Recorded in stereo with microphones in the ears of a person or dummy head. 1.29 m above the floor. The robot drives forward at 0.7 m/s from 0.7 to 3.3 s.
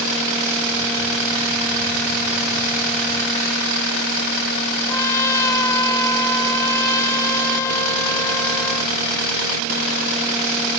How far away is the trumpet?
About 2.5 m.